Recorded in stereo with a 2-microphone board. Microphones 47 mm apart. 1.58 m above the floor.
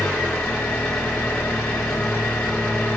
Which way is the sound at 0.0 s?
25° left (ahead or behind).